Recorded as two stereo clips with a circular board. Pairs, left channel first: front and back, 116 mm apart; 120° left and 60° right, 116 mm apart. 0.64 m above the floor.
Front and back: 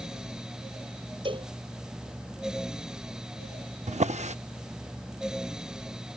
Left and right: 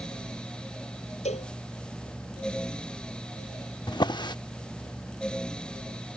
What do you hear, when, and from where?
1.2 s a cowbell: 135° left
3.9 s a drawer: 170° left